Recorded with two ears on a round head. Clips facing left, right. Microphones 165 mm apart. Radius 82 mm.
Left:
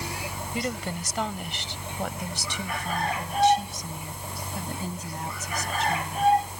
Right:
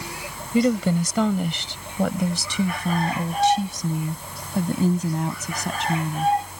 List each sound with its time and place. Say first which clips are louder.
0.5 s a woman speaking: right 13 dB; 75° right (ahead or behind); by 6.3 s 60° right (ahead or behind)